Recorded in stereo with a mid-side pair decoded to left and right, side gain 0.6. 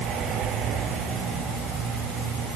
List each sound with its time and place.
Only background noise.